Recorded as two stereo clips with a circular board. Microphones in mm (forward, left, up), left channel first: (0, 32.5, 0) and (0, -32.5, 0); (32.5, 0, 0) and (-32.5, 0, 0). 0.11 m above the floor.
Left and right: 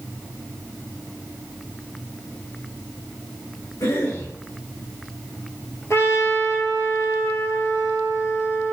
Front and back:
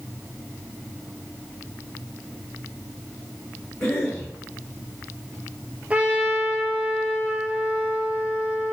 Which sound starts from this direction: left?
A cough, at 3.8 s.